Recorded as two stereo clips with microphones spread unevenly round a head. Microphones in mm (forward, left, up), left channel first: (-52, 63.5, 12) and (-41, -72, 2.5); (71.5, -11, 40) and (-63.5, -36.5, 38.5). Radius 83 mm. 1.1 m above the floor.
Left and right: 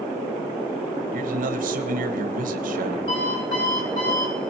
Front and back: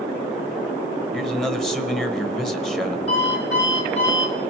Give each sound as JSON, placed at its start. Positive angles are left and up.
{"t": 1.1, "sound": "a man speaking", "azimuth_deg": -75, "distance_m": 1.0}
{"t": 3.1, "sound": "an alarm clock", "azimuth_deg": 65, "distance_m": 3.0}